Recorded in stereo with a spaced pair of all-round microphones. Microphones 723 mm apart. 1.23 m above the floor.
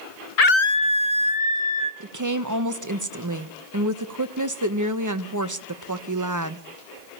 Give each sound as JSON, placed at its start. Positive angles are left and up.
{"t": 0.4, "sound": "a scream", "side_deg": 60, "distance_m": 0.6}
{"t": 2.0, "sound": "a woman speaking", "side_deg": -25, "distance_m": 1.3}